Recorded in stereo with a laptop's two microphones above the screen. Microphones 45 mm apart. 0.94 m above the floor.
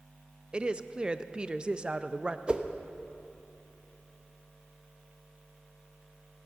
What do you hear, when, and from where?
0.5 s a woman speaking: 20° right (ahead or behind), 0.6 m
2.5 s a whoosh: 25° right (ahead or behind), 0.8 m